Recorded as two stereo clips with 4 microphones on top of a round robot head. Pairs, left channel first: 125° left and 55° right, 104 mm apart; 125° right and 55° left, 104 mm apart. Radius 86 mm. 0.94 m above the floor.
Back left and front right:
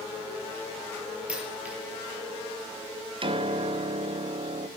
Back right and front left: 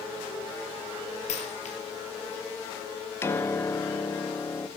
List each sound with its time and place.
1.3 s a dropped coin: 135° right, 5 m
3.2 s a piano: 65° right, 1.4 m